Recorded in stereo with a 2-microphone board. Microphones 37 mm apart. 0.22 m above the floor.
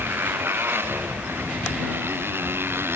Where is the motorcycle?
75° right (ahead or behind).